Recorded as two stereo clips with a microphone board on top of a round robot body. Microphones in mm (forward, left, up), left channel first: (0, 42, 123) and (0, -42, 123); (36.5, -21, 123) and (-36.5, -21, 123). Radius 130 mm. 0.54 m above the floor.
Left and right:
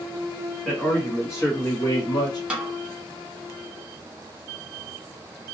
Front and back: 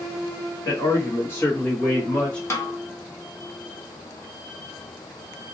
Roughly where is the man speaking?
Ahead.